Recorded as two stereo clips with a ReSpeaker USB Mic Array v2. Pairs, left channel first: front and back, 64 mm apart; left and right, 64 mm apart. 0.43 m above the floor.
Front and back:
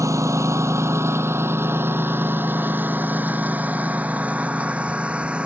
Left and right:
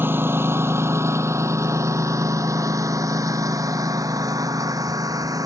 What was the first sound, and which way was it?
A lawn mower, 145° right.